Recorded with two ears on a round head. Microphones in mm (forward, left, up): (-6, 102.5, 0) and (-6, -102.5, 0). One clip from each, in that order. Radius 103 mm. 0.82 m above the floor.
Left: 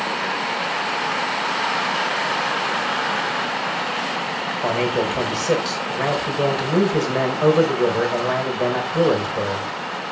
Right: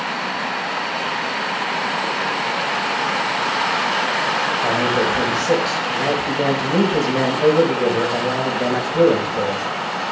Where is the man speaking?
40° left (ahead or behind), 4 m.